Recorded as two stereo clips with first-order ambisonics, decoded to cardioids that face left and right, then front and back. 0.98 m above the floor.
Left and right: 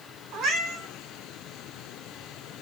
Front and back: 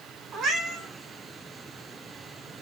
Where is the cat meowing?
130° right, 1.3 m.